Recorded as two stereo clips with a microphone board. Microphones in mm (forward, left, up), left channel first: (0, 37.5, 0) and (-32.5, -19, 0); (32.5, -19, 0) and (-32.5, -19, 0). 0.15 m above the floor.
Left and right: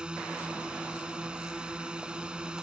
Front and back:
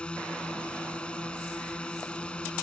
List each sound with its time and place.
0.0 s a drone: 60° right